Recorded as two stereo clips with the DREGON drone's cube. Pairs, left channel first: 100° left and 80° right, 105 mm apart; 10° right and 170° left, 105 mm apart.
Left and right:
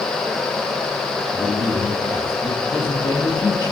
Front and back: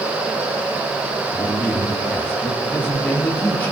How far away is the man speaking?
About 3 m.